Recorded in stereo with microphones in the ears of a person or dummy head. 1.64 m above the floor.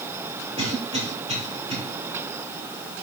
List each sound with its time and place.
0.6 s a cough: 35° right (ahead or behind), 4.5 m